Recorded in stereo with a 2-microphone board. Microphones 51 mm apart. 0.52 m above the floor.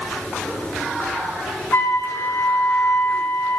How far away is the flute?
About 3.5 m.